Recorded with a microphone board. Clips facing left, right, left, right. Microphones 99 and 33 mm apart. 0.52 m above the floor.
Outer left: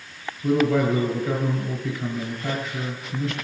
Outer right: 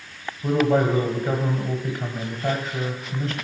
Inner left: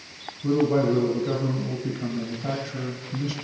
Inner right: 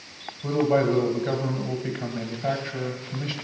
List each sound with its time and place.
0.4 s a man speaking: 55° right (ahead or behind), 1.7 m